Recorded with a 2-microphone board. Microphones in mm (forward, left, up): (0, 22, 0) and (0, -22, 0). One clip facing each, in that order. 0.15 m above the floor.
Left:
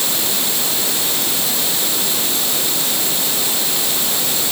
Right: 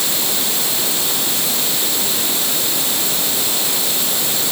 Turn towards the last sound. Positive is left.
No sound to turn to.